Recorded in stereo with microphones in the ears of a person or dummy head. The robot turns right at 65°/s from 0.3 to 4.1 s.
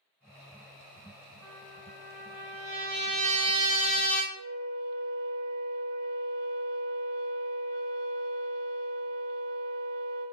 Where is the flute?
20° left (ahead or behind), 1.2 m.